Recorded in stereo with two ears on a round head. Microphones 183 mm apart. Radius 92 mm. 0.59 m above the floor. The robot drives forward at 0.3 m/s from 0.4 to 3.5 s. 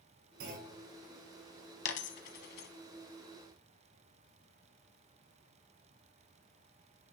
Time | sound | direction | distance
0.4 | a clunk | 65° right (ahead or behind) | 4.5 m
1.9 | a dropped coin | 60° left (ahead or behind) | 0.9 m